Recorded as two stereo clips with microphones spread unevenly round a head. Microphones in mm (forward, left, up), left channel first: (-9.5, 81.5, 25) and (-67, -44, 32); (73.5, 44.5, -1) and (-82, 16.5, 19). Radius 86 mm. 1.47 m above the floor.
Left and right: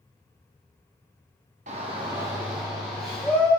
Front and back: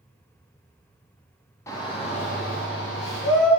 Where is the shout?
65° right, 1.0 m; by 3.5 s 10° right, 1.7 m.